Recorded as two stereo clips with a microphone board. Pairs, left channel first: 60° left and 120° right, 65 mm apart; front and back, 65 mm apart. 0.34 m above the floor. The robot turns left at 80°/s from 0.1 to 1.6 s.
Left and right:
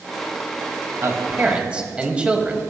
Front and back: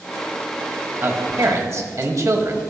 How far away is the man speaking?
About 1.6 m.